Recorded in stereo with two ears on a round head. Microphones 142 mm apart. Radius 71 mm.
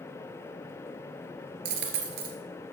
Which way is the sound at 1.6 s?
70° right (ahead or behind).